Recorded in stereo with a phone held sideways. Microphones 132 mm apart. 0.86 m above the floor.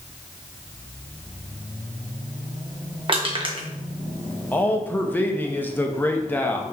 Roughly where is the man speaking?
Centre.